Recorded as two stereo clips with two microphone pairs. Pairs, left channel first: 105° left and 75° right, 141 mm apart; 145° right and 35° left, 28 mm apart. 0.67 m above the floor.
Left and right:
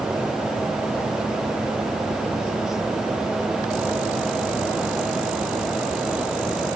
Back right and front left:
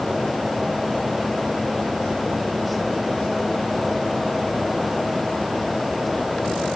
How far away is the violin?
No violin in this recording.